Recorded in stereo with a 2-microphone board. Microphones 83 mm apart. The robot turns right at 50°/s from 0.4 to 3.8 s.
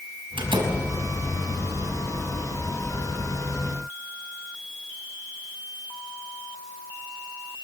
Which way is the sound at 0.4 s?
85° right.